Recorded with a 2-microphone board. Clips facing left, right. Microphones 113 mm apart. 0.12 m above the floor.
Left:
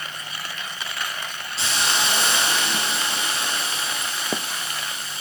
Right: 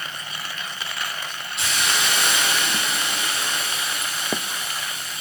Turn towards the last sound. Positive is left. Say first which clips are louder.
# left 1 dB
turn(degrees=30)  # may be behind; listen again after turning